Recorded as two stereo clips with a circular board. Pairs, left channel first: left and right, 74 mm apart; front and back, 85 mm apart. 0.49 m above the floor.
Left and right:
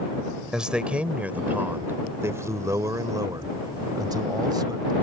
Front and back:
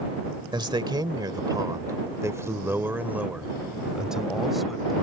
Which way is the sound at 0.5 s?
170° right.